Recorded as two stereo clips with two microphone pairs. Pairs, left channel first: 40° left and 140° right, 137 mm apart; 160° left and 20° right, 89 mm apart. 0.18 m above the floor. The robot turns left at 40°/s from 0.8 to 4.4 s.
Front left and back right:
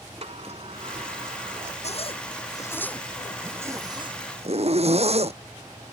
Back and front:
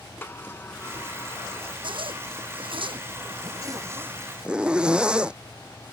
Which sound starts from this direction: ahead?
A zipper, at 1.8 s.